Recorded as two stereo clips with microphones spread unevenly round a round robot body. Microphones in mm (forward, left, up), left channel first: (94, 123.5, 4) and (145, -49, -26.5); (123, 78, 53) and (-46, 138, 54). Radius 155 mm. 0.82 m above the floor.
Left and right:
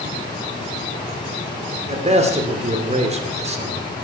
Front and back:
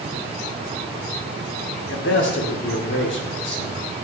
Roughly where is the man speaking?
Ahead right.